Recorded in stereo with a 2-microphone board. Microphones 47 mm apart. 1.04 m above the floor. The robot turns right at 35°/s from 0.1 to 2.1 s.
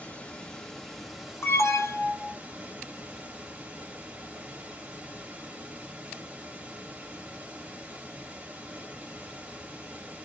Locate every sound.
0.0 s running water: 145° left, 1.1 m; by 10.3 s 145° right, 1.1 m
1.4 s an alarm: 60° left (ahead or behind), 1.6 m